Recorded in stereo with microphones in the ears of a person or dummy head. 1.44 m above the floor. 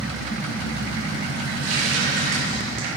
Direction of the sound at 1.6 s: 85° right.